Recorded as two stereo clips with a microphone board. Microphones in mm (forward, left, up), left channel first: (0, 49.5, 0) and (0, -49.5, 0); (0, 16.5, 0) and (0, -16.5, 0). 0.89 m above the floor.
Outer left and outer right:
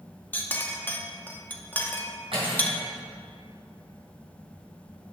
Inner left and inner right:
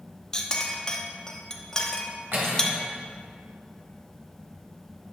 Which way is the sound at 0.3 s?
20° left (ahead or behind).